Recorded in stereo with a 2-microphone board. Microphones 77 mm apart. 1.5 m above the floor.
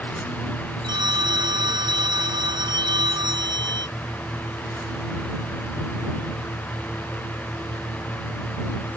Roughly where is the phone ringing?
Right.